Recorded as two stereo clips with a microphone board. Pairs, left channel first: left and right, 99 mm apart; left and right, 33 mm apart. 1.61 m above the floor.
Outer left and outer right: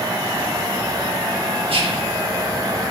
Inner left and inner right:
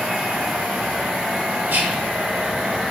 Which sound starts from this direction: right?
Whispering, at 1.7 s.